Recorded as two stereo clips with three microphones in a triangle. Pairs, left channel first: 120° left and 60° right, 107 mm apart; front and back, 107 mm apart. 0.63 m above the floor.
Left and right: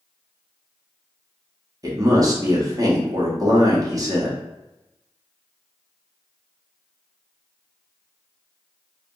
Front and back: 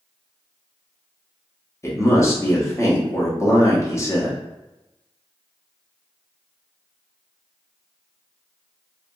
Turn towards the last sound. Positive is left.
turn(degrees=-40)